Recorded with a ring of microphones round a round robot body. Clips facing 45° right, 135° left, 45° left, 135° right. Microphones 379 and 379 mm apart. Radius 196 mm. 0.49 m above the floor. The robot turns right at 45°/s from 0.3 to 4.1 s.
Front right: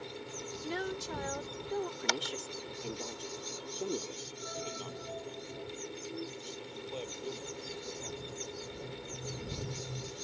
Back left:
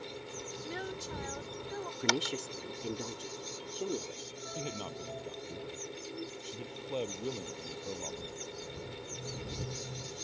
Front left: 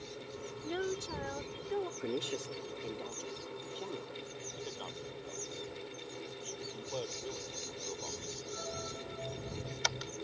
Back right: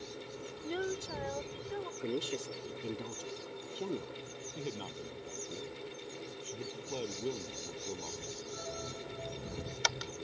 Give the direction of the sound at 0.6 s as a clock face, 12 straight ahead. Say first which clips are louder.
Front right 5 dB, even; 2 o'clock.